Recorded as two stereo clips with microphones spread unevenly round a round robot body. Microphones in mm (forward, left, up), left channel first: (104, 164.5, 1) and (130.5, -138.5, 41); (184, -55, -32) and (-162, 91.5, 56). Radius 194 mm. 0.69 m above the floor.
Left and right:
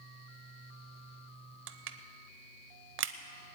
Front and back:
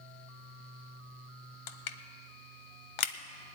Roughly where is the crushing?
Ahead right.